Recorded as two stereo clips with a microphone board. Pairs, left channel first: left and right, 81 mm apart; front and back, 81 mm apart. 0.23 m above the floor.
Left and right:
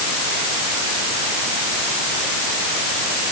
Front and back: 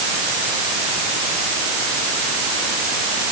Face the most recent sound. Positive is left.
No sound to turn to.